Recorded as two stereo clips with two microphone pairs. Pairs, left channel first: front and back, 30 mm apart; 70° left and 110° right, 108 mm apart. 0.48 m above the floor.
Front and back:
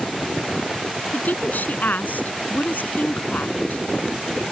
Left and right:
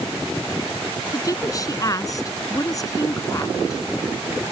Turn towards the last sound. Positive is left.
turn(degrees=15)